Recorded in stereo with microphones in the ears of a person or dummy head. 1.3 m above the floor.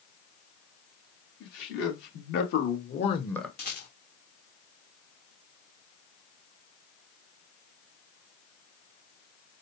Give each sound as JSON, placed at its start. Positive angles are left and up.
{"t": 1.4, "sound": "a man speaking", "side_deg": 70, "distance_m": 2.5}
{"t": 3.6, "sound": "a rattle", "side_deg": 45, "distance_m": 1.0}